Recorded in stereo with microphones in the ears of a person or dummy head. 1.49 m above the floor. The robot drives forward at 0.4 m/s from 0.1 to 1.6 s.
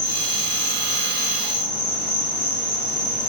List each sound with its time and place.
0.0 s an insect: 65° left (ahead or behind), 0.7 m; by 3.3 s 40° left (ahead or behind), 1.1 m